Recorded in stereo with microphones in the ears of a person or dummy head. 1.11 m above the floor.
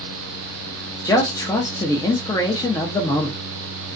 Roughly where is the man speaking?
Centre.